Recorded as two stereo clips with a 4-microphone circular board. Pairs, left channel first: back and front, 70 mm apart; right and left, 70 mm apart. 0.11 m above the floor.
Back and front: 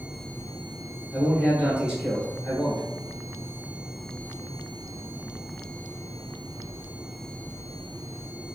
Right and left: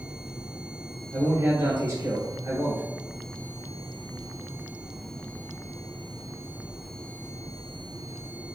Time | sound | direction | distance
1.1 | a man speaking | 75° left | 1.8 m